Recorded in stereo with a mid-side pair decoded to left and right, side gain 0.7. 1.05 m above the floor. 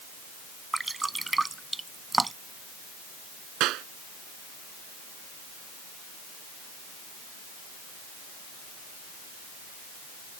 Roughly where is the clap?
Ahead right.